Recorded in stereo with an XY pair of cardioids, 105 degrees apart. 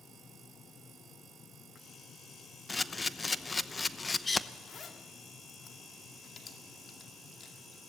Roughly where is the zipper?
Ahead left.